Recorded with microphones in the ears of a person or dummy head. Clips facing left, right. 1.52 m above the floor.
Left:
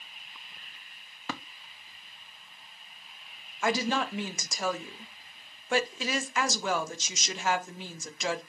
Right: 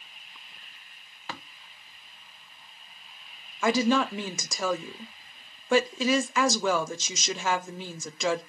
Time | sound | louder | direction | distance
1.3 | tapping | left 3 dB | 80° left | 0.8 m
3.6 | a woman speaking | right 5 dB | 70° right (ahead or behind) | 0.6 m